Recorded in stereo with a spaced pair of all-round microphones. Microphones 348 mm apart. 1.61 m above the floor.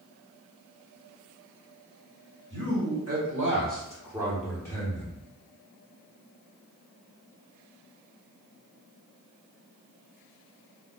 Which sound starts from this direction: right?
A man speaking, at 2.5 s.